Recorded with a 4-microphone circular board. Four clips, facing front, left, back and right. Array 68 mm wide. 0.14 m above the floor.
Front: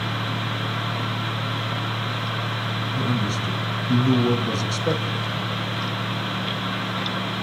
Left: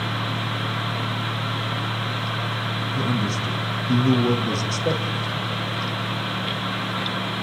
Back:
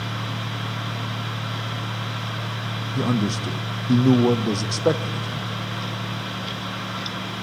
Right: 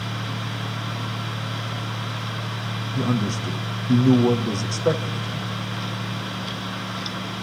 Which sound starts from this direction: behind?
A man speaking, at 3.0 s.